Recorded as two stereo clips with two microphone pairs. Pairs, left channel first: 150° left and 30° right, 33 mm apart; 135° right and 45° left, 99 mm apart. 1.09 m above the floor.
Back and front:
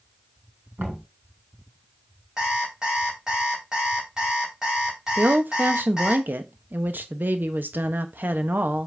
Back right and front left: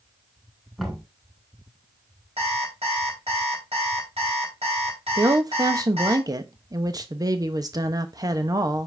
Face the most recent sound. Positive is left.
turn(degrees=-5)